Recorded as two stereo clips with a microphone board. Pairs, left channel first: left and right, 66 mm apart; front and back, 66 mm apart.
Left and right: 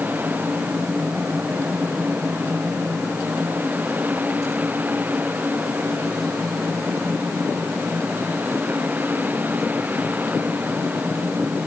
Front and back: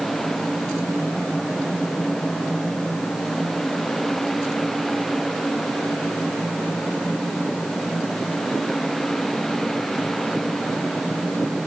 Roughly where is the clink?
I don't hear a clink.